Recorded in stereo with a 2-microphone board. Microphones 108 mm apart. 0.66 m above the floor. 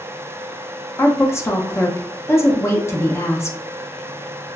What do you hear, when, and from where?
1.0 s a woman speaking: 25° left (ahead or behind), 0.5 m